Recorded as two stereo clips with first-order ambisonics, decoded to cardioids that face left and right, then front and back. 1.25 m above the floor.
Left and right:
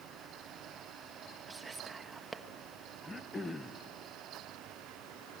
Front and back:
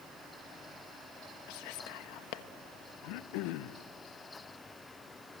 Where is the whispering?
10° right, 1.1 m.